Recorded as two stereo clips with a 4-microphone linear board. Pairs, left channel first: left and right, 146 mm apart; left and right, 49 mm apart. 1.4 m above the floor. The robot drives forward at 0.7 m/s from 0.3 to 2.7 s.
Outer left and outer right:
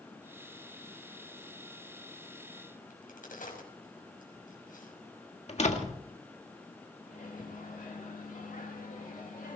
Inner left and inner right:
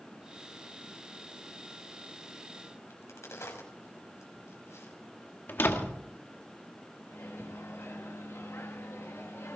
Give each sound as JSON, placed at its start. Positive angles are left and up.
{"t": 2.9, "sound": "a crack", "side_deg": 70, "distance_m": 5.5}
{"t": 5.5, "sound": "a door slam", "side_deg": 50, "distance_m": 1.7}
{"t": 7.1, "sound": "a microwave", "side_deg": 65, "distance_m": 2.5}